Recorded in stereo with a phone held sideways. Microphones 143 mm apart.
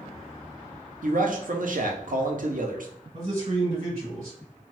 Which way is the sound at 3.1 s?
55° right (ahead or behind).